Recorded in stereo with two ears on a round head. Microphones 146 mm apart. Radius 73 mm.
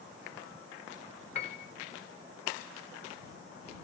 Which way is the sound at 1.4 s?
40° left (ahead or behind).